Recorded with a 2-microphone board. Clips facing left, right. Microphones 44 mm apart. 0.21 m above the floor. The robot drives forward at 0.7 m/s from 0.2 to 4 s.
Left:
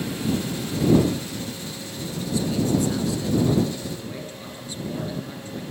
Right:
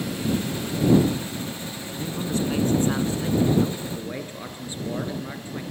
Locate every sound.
2.0 s a man speaking: 45° right (ahead or behind), 1.7 m; by 5.6 s 30° right (ahead or behind), 2.5 m